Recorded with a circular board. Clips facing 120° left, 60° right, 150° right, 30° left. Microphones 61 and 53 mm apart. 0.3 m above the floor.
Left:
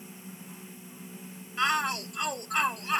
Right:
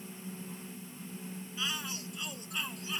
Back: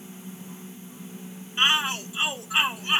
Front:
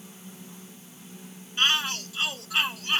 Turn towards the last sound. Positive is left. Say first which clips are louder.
# left 12 dB, back 2 dB
turn(degrees=140)